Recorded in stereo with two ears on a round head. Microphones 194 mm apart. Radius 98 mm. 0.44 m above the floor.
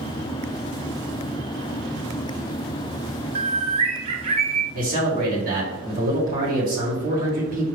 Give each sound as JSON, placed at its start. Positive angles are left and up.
{"t": 3.4, "sound": "a bird", "side_deg": -25, "distance_m": 0.7}
{"t": 4.7, "sound": "a man speaking", "side_deg": -40, "distance_m": 1.7}